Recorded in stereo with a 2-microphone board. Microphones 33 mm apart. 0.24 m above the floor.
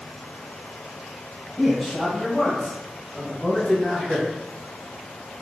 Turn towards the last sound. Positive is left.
turn(degrees=5)  # may be behind; listen again after turning